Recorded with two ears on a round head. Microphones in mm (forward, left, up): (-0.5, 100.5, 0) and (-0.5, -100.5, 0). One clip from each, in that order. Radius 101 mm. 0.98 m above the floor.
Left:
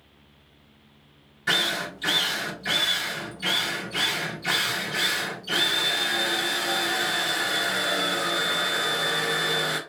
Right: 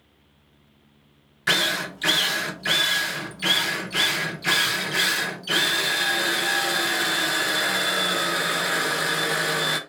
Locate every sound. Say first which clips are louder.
1.5 s a drill: right 2 dB; 35° right (ahead or behind), 0.7 m